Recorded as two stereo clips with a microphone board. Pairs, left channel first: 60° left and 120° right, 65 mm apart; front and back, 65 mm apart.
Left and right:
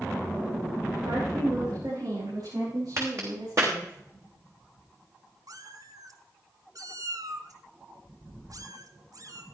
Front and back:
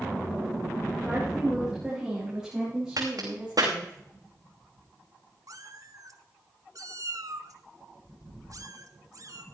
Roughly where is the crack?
Behind.